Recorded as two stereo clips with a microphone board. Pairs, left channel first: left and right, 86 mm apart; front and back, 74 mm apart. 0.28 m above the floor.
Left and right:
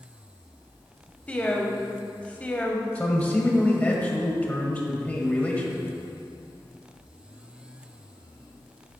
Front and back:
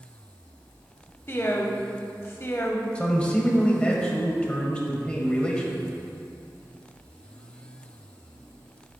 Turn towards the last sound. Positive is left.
turn(degrees=50)